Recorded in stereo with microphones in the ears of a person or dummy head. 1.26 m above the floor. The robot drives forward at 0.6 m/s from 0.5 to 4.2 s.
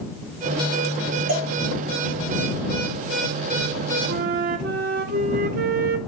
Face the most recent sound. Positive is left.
turn(degrees=-40)  # may be behind; listen again after turning